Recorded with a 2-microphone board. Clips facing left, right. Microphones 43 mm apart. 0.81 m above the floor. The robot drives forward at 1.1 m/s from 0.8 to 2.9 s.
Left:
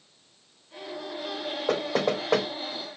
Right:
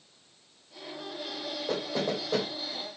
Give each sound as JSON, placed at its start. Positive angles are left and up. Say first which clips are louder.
{"t": 1.7, "sound": "knocking", "louder": "left 5 dB", "side_deg": 70, "distance_m": 2.5}